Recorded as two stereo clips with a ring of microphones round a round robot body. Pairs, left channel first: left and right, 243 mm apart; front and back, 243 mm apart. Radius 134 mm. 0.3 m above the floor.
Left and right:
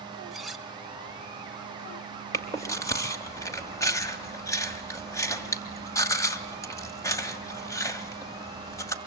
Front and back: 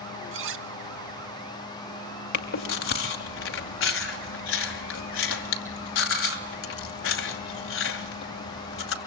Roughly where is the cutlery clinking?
Behind.